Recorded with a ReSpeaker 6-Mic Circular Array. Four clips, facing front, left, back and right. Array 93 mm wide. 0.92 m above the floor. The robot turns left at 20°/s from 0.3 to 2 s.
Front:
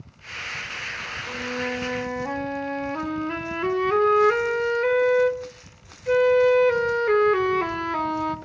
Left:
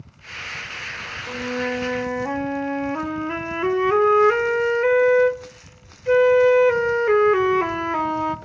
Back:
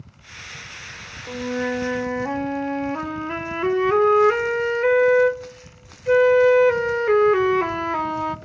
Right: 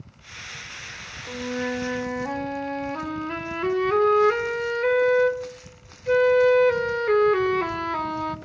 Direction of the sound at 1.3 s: 130° left.